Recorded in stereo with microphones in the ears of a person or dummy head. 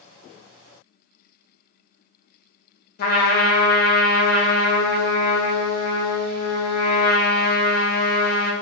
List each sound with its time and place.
3.0 s a trumpet: 50° left (ahead or behind), 0.5 m